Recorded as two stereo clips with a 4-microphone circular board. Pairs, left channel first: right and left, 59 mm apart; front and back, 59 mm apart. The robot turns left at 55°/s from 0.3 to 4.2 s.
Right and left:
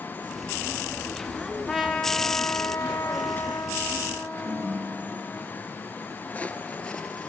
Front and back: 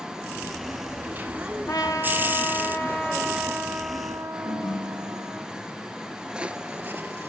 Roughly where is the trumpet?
Ahead.